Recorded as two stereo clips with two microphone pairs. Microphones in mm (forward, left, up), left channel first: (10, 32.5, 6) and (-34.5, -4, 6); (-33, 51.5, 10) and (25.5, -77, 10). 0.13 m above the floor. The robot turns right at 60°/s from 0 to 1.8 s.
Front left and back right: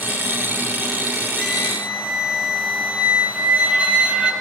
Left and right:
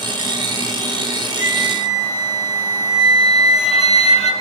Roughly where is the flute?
Behind left.